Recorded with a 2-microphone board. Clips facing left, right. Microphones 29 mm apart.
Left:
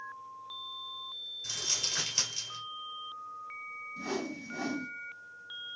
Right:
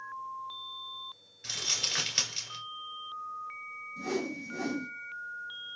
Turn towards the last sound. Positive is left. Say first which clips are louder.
# right 3 dB
turn(degrees=10)  # may be behind; listen again after turning